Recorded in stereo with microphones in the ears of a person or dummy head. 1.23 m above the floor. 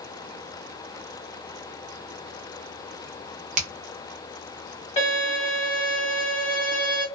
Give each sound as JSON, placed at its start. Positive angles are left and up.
{"t": 3.6, "sound": "a finger snap", "side_deg": -40, "distance_m": 0.7}
{"t": 5.0, "sound": "a violin", "side_deg": 30, "distance_m": 1.1}